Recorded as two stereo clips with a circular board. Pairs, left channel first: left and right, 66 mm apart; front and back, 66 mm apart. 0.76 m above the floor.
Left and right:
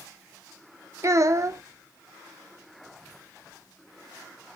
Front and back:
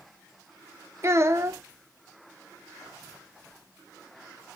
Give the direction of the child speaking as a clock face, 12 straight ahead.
4 o'clock.